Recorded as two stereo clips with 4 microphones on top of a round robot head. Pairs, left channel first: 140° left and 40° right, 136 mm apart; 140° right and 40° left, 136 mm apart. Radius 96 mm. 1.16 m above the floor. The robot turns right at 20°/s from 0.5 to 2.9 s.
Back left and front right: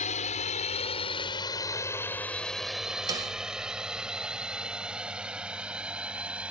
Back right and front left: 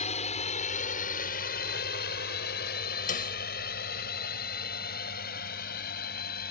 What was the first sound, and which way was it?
A drone, straight behind.